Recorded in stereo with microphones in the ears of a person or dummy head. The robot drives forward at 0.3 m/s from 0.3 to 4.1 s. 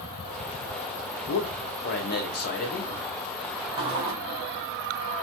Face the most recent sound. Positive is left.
turn(degrees=-25)  # may be behind; listen again after turning